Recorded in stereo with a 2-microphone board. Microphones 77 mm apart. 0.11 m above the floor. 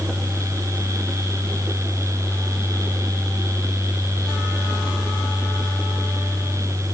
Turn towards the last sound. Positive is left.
No sound to turn to.